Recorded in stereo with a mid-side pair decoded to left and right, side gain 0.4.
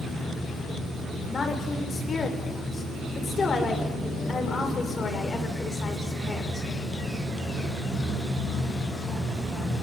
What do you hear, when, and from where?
1.3 s a woman speaking: 40° left, 7 m